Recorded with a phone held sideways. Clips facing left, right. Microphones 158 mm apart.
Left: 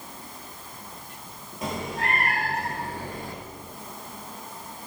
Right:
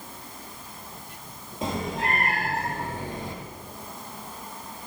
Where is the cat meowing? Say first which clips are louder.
Right 2 dB; 25° right (ahead or behind), 4 m; by 3.4 s 20° right (ahead or behind), 2.5 m.